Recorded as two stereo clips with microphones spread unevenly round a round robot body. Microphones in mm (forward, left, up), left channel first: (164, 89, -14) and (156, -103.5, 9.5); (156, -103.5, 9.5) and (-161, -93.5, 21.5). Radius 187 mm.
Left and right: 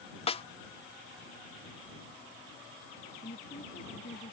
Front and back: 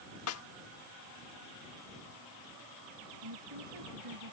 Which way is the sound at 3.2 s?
150° left.